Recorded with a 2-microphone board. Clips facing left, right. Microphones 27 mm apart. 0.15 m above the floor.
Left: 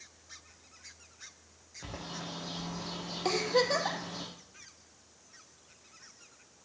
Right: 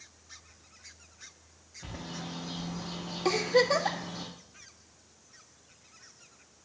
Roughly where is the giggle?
Centre.